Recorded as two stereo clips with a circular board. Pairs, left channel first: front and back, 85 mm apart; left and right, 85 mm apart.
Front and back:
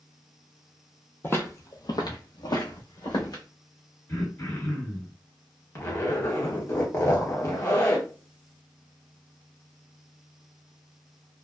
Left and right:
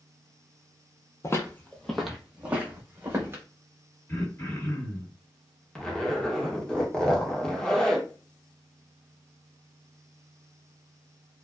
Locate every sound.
1.2 s footsteps: 55° left, 0.7 m; by 3.4 s 30° right, 1.6 m
4.1 s throat clearing: 45° left, 1.9 m
5.8 s a zipper: 15° left, 0.8 m